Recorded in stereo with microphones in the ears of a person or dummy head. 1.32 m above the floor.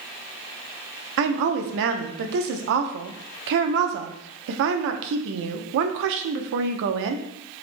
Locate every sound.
1.2 s a woman speaking: 65° right (ahead or behind), 0.7 m